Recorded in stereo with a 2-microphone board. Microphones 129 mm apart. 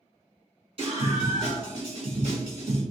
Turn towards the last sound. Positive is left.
turn(degrees=-40)  # may be behind; listen again after turning